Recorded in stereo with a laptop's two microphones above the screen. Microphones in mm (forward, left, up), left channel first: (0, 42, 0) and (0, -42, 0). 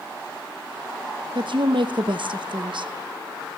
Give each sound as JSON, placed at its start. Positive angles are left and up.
{"t": 1.4, "sound": "a woman speaking", "side_deg": -65, "distance_m": 0.7}